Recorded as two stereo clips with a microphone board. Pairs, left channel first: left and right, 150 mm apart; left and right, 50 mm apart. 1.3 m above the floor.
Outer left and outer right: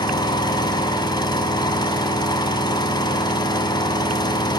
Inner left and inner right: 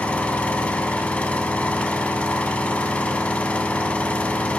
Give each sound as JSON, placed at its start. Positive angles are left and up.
{"t": 0.0, "sound": "an engine running", "side_deg": 25, "distance_m": 2.0}